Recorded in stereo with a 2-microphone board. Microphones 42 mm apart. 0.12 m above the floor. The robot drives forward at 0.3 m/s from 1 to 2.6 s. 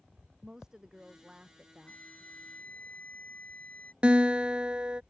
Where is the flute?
35° left (ahead or behind).